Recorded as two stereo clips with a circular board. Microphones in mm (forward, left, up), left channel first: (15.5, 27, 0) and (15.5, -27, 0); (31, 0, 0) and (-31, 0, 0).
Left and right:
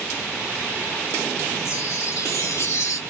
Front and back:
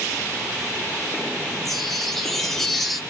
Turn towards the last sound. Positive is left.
turn(degrees=85)